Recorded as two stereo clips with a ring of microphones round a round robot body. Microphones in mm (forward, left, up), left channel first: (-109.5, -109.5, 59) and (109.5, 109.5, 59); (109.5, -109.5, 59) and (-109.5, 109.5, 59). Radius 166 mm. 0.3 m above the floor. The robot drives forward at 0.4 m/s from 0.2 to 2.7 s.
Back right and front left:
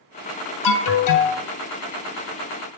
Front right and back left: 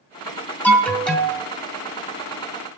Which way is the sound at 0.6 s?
130° right.